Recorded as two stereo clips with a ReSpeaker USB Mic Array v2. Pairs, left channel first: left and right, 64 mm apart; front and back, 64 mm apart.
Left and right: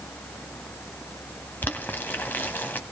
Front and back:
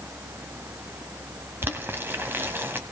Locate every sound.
1.6 s boiling: 140° left, 1.0 m